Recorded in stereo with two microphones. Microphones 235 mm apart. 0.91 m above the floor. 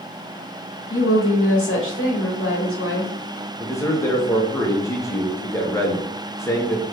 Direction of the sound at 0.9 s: 65° left (ahead or behind).